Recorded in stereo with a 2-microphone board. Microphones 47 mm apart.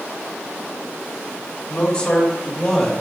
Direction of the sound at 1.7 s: 30° left (ahead or behind).